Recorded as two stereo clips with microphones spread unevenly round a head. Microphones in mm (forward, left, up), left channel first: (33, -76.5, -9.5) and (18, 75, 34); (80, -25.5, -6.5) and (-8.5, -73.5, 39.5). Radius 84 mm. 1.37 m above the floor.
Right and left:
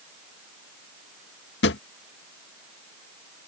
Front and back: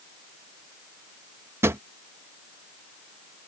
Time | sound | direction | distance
1.6 | a drawer | 110° right | ?